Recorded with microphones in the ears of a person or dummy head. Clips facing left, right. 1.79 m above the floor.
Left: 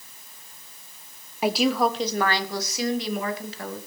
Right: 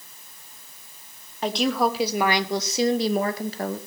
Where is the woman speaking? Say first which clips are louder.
Left 1 dB; 10° left (ahead or behind), 1.1 m; by 3.8 s 40° right (ahead or behind), 2.0 m.